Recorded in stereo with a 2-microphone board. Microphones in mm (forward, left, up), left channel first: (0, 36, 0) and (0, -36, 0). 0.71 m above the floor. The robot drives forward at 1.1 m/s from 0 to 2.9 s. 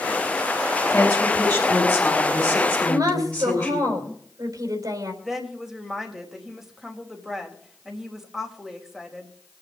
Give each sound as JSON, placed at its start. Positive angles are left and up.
{"t": 0.9, "sound": "a woman speaking", "side_deg": 20, "distance_m": 4.0}
{"t": 2.8, "sound": "a woman speaking", "side_deg": -60, "distance_m": 4.0}
{"t": 5.2, "sound": "a woman speaking", "side_deg": -5, "distance_m": 3.5}